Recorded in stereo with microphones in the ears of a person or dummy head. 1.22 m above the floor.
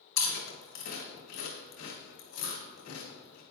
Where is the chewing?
70° left (ahead or behind), 1.9 m.